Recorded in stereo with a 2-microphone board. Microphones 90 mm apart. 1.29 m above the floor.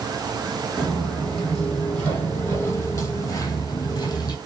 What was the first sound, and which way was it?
Footsteps, centre (ahead or behind).